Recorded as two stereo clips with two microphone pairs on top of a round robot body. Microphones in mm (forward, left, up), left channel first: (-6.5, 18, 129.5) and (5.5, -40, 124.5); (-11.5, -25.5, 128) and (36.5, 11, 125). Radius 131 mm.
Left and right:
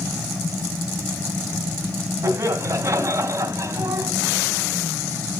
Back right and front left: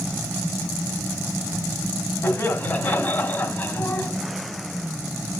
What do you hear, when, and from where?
2.2 s laughter: 95° right, 1.8 m